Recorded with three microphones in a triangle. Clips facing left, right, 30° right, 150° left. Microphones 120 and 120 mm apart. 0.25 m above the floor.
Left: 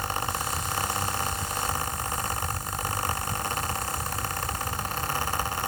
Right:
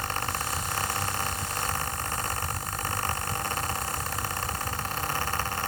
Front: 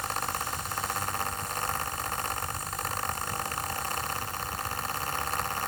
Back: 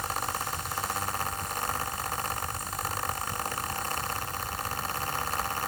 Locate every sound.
Only background noise.